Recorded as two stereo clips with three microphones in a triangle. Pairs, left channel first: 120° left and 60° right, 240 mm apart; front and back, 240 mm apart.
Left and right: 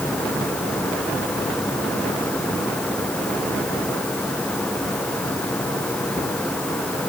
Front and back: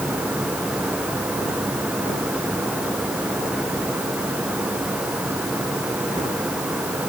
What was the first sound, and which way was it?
Only background noise.